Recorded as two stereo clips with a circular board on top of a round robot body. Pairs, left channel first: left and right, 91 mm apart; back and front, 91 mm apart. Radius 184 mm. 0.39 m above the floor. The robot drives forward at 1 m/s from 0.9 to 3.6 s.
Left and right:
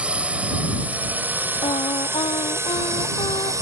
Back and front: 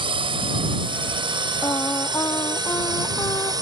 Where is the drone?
15° right; by 3.6 s 40° right.